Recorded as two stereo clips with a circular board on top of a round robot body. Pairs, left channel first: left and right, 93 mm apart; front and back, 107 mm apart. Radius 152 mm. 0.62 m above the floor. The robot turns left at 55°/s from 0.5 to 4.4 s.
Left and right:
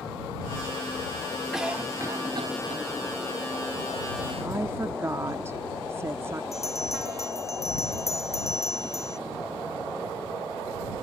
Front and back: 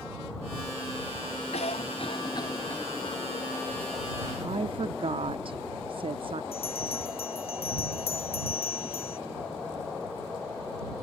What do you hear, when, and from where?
1.5 s a cough: 5° right; by 2.8 s 75° right
4.4 s a woman speaking: 150° right
6.5 s a bell: 30° left